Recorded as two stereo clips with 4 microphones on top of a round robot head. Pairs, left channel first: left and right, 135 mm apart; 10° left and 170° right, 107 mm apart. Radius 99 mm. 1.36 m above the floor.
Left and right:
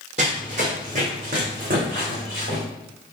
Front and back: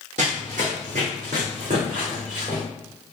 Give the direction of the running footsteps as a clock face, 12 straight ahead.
5 o'clock.